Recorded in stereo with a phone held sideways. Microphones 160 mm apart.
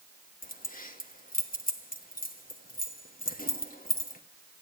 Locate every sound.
0.4 s keys jangling: 60° left (ahead or behind), 1.3 m